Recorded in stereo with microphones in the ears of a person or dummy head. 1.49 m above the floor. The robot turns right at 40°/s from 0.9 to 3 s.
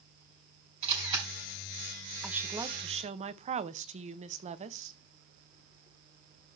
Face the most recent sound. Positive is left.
turn(degrees=-145)